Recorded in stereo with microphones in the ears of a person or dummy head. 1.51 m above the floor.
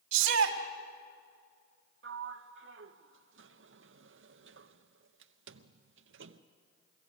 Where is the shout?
80° right, 1.9 m.